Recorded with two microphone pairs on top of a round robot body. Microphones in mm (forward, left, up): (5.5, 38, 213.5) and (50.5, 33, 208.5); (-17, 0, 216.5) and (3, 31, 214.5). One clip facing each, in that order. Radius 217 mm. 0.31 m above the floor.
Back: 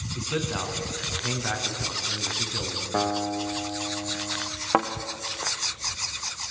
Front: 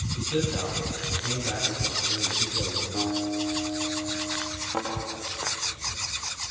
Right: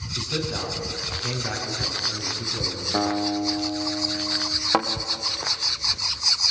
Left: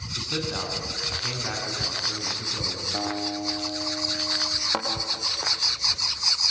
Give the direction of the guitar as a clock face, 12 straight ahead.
6 o'clock.